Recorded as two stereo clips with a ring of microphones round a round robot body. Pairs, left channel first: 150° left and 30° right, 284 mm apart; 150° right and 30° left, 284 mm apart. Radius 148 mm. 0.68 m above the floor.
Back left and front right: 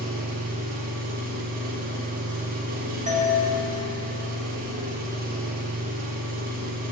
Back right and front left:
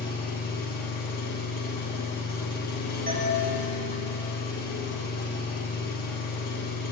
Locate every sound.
0.0 s an engine running: 90° right, 0.8 m
3.1 s a doorbell: 10° left, 1.0 m